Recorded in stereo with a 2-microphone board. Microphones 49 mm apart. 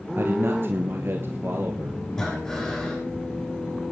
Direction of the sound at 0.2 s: 55° right (ahead or behind).